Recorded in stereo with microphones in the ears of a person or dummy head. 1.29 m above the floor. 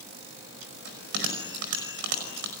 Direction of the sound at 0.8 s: 70° right (ahead or behind).